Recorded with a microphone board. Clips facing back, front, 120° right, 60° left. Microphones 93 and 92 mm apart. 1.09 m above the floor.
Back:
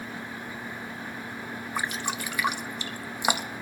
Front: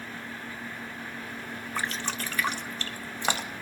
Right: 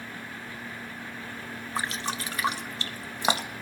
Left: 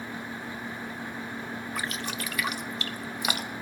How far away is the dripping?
About 0.5 m.